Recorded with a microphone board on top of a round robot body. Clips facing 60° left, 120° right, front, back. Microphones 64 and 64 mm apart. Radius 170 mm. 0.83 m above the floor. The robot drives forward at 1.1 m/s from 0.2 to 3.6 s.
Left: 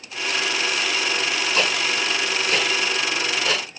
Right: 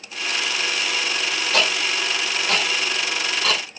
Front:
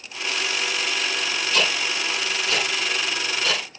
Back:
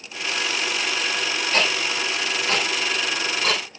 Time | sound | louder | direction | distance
1.5 | ticking | right 2 dB, back 1 dB | 130° right | 6.5 m